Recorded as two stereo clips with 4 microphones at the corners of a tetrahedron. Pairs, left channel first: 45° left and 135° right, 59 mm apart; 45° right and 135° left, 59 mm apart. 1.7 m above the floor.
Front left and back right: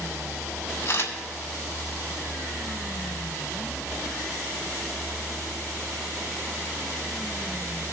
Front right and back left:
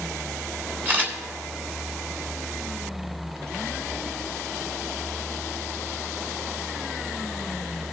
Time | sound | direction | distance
0.8 | a camera shutter | 85° left | 2 m